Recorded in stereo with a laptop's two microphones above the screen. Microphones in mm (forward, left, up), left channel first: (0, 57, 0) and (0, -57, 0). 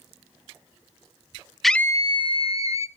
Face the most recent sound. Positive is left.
turn(degrees=65)  # may be behind; listen again after turning